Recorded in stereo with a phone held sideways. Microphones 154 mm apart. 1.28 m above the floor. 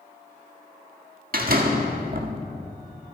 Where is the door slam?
65° right (ahead or behind), 1.6 m.